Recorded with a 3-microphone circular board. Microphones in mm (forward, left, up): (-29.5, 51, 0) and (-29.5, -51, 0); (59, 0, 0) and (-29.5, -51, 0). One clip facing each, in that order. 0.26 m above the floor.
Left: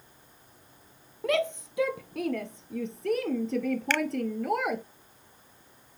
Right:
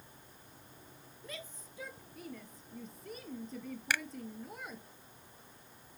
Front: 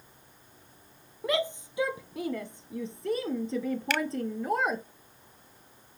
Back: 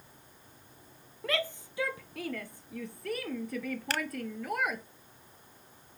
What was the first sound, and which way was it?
A shout, 100° left.